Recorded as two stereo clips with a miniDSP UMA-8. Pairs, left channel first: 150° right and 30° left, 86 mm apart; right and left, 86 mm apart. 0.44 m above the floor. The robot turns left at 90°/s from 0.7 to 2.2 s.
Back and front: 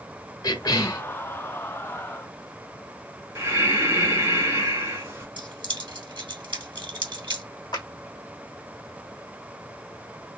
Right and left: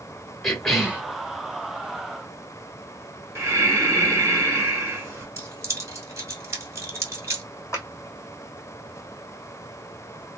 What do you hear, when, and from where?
0.4 s a cough: 175° right, 1.8 m; by 1.0 s 155° left, 1.8 m
3.4 s breathing: 55° left, 1.7 m
5.4 s keys jangling: 40° left, 1.6 m
7.7 s a clap: 140° right, 1.6 m